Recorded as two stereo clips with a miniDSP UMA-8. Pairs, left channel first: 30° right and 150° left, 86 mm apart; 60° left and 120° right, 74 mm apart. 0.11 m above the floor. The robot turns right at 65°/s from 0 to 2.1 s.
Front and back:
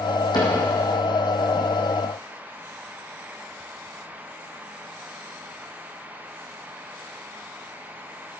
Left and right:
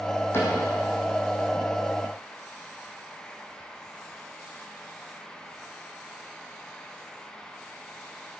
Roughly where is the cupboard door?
Ahead.